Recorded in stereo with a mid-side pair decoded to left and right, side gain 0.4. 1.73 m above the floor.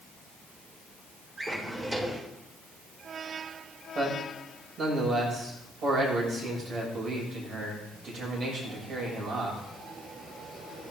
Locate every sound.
1.4 s a drawer: 30° right, 3.5 m
4.0 s a man speaking: 65° right, 7 m